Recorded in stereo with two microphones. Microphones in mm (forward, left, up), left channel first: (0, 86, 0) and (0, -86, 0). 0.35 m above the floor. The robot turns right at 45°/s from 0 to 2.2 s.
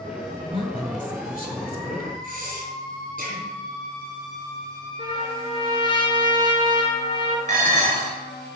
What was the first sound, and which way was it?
A woman speaking, 35° left.